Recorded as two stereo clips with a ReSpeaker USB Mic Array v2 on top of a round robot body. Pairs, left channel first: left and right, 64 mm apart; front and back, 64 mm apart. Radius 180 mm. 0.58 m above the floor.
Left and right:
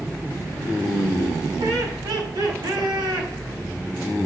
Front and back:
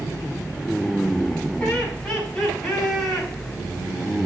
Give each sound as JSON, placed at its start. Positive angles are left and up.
{"t": 1.6, "sound": "laughter", "azimuth_deg": -75, "distance_m": 7.0}